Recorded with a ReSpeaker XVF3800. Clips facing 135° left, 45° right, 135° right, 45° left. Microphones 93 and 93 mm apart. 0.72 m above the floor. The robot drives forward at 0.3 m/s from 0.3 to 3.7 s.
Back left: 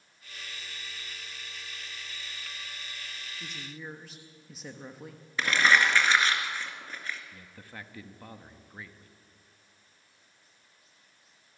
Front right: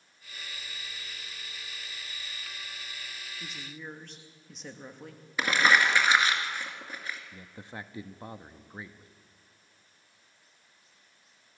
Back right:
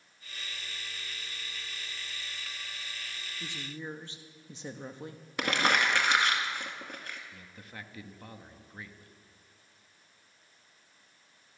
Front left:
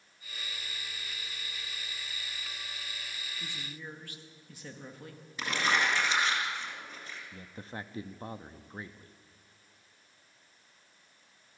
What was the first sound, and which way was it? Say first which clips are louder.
A woman speaking: back left 1 dB, back right 6 dB; 125° right.